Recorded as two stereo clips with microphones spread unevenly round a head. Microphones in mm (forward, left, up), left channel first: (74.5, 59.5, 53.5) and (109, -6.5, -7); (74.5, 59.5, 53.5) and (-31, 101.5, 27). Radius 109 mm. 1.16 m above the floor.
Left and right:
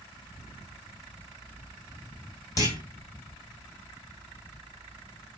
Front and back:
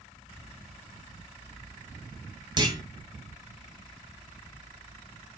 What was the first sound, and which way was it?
A clunk, 105° left.